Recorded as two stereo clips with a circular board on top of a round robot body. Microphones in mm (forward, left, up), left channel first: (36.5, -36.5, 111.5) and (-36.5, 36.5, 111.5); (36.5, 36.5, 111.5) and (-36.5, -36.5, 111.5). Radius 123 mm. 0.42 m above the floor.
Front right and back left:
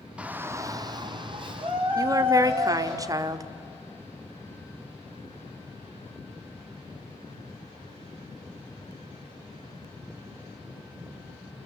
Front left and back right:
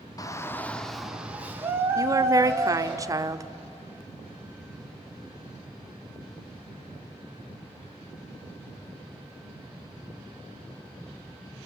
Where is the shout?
65° left, 1.4 m; by 3.0 s 170° left, 4 m.